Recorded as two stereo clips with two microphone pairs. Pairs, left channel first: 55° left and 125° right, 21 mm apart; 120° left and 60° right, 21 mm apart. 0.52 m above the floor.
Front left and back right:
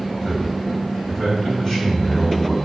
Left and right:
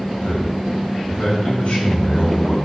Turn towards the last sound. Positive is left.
turn(degrees=120)